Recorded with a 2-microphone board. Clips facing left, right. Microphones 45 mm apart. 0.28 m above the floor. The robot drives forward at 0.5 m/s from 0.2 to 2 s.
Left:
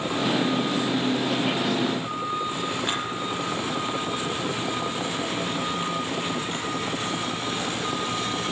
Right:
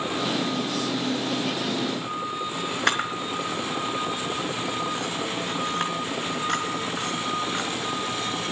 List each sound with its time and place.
2.9 s a camera shutter: 70° right (ahead or behind), 4 m